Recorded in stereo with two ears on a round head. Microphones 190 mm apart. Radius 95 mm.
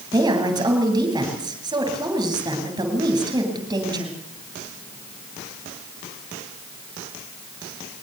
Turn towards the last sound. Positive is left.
turn(degrees=-20)  # may be behind; listen again after turning